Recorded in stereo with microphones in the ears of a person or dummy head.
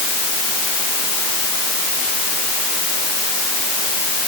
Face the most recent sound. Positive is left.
No sound to turn to.